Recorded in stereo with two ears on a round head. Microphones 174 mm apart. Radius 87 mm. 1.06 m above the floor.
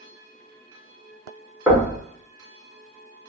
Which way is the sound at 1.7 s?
5° right (ahead or behind).